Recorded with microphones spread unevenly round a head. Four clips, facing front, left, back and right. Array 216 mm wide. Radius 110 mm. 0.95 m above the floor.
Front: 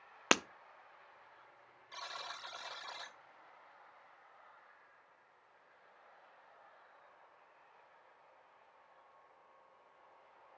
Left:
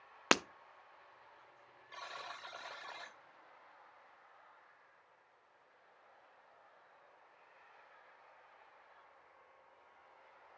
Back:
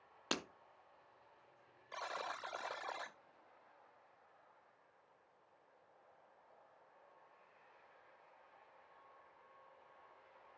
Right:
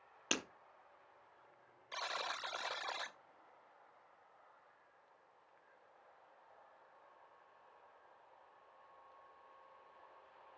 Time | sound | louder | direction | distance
0.3 | breaking glass | left 10 dB, front 10 dB | 40° left | 0.7 m
1.9 | a buzzer | right 5 dB, back 3 dB | 150° right | 0.6 m